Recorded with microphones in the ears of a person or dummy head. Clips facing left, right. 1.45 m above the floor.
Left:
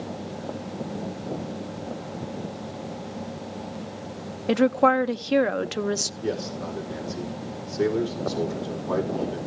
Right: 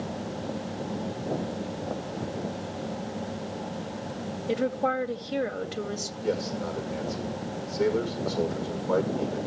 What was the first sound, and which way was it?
A woman speaking, 70° left (ahead or behind).